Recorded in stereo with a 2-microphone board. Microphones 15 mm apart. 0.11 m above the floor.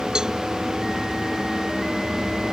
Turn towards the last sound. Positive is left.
turn(degrees=-50)  # may be behind; listen again after turning